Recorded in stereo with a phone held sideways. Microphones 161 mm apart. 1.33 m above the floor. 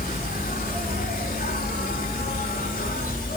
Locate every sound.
0.0 s an insect: 60° left (ahead or behind), 4 m